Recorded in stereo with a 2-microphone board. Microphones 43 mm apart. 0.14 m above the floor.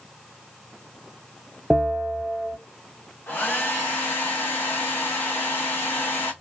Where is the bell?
5° right (ahead or behind), 0.6 m.